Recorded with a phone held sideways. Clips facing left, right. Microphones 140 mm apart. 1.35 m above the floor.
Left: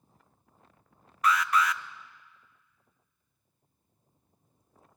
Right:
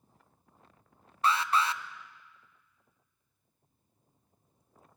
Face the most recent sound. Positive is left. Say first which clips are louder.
# left 2 dB
turn(degrees=-30)  # may be behind; listen again after turning